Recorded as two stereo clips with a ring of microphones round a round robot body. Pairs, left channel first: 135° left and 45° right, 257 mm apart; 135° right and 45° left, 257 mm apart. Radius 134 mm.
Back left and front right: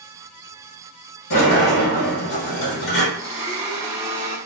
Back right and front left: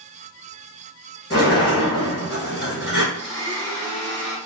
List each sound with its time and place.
1.3 s a sliding door: 135° left, 1.3 m
3.1 s a blender: 20° left, 1.5 m